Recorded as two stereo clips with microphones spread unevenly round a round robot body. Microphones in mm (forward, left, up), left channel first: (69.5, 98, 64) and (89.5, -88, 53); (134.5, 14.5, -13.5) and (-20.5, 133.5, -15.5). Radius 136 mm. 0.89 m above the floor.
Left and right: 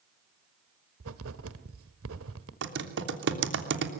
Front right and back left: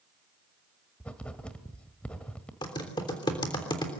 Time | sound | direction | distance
1.0 | writing | 125° right | 1.3 m
2.6 | typing on a keyboard | 115° right | 3 m